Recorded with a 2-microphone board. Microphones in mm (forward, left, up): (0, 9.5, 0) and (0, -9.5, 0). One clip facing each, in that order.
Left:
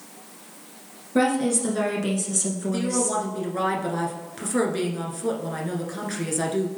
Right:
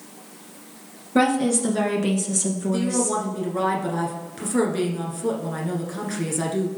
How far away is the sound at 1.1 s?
About 1.8 m.